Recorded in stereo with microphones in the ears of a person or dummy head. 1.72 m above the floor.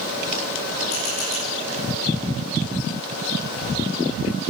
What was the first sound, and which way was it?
A camera shutter, 50° left (ahead or behind).